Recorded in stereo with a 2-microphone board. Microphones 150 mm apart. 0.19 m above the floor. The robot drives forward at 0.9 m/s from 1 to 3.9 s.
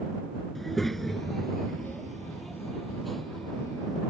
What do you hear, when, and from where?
0.6 s a child speaking: centre (ahead or behind)